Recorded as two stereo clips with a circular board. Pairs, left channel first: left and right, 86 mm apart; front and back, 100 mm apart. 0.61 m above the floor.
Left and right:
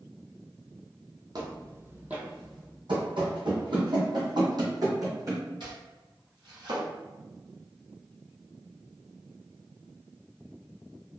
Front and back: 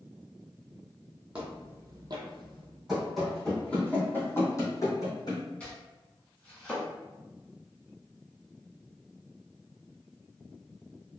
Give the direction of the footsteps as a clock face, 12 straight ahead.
3 o'clock.